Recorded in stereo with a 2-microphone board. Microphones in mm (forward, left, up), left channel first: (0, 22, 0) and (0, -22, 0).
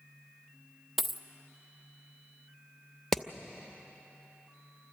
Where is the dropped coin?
Centre (ahead or behind), 0.7 m.